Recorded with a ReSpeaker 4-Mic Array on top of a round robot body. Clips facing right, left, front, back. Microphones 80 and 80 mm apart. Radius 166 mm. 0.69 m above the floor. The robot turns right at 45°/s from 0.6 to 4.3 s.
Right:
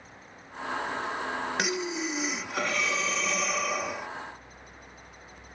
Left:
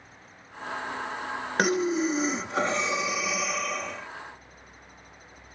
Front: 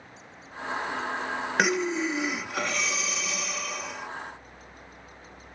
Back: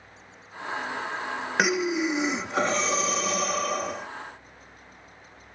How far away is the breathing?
About 0.5 m.